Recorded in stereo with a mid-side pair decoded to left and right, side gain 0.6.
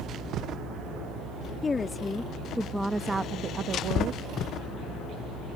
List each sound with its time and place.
1.6 s a woman speaking: 25° left; by 4.2 s 65° right